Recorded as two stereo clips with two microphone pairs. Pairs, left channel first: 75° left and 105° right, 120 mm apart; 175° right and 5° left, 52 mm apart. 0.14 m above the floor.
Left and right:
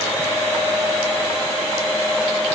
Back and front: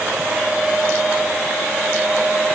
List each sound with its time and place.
Only background noise.